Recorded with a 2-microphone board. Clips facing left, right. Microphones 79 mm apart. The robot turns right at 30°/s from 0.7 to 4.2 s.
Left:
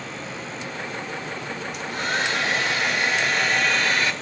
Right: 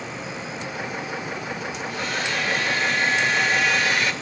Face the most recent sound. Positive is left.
turn(degrees=140)